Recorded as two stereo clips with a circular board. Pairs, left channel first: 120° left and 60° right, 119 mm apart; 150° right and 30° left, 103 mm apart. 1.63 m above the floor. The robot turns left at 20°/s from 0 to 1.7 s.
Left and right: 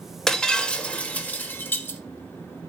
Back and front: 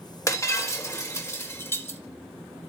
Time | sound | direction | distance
0.3 | breaking glass | 160° right | 1.5 m